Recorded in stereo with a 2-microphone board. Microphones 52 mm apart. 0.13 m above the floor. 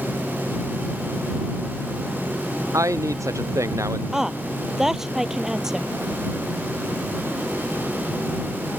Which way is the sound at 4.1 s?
5° right (ahead or behind).